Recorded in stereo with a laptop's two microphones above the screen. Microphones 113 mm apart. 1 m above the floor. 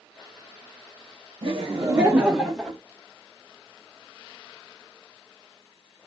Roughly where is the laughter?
Right.